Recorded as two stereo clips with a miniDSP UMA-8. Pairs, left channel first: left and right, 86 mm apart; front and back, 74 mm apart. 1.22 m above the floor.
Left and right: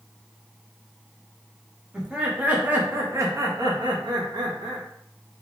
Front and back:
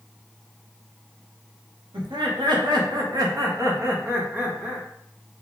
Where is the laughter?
175° right, 1.6 m; by 4.9 s 100° right, 1.4 m.